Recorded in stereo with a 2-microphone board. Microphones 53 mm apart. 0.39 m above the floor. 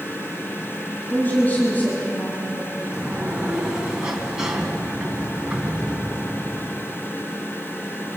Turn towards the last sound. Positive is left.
turn(degrees=-10)  # may be behind; listen again after turning